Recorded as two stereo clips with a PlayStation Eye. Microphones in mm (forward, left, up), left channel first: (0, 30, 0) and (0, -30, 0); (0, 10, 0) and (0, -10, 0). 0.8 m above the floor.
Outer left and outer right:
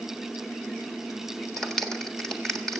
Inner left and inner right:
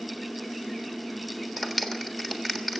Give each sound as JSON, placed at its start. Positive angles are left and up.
{"t": 1.6, "sound": "a clap", "side_deg": 5, "distance_m": 1.6}